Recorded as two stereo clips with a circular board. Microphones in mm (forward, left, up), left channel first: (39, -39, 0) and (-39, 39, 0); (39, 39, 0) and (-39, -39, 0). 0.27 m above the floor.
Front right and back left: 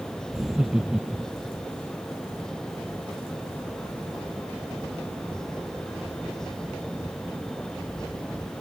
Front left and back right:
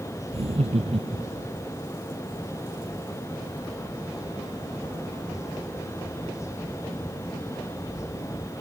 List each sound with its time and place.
0.3 s laughter: 140° right